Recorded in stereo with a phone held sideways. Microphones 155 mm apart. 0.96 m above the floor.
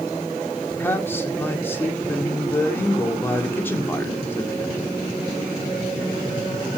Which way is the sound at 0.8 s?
15° left (ahead or behind).